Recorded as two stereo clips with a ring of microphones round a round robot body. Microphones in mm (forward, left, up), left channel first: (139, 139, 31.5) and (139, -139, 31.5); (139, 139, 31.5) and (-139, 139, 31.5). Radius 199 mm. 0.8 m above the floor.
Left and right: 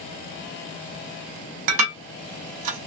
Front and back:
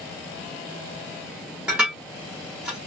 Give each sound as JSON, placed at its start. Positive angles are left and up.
{"t": 1.7, "sound": "dishes clattering", "azimuth_deg": -90, "distance_m": 0.7}